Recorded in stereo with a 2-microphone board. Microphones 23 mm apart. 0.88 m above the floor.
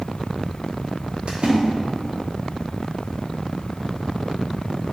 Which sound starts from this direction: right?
A splash, at 1.3 s.